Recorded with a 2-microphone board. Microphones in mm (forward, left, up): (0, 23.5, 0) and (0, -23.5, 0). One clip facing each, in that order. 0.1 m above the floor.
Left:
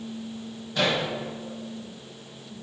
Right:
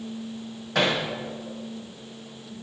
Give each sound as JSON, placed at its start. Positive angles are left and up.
{"t": 0.8, "sound": "hammering", "side_deg": -85, "distance_m": 8.0}